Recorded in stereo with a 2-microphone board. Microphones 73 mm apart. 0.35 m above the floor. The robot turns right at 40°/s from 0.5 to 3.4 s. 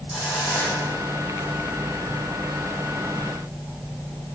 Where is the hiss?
15° left, 9 m; by 1.5 s 55° left, 9 m.